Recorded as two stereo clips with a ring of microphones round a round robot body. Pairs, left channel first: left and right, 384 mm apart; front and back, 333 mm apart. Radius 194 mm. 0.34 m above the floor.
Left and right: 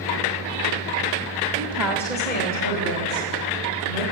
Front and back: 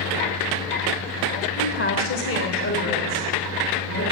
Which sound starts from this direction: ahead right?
A woman speaking, at 1.6 s.